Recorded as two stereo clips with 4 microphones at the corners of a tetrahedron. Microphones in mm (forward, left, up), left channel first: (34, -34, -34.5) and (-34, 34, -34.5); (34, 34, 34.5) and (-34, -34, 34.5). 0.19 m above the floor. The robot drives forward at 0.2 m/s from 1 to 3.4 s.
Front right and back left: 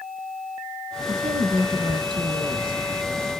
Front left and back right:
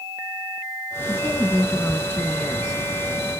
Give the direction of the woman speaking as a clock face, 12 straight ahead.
8 o'clock.